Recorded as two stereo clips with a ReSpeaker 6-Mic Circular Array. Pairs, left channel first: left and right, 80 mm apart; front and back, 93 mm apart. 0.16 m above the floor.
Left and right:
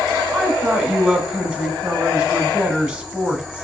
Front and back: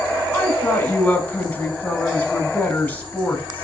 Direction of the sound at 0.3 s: 35° right.